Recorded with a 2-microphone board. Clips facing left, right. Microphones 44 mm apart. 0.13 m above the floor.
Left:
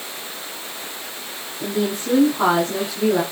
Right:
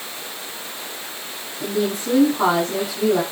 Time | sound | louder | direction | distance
1.6 | a woman speaking | even | centre (ahead or behind) | 8.5 m